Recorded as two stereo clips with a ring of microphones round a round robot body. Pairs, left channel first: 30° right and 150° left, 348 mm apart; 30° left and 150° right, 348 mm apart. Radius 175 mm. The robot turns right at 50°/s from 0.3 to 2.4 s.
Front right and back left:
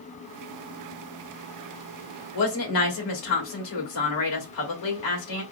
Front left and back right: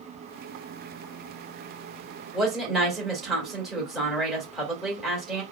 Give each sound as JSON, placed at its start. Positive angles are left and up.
{"t": 2.3, "sound": "a woman speaking", "azimuth_deg": -65, "distance_m": 2.5}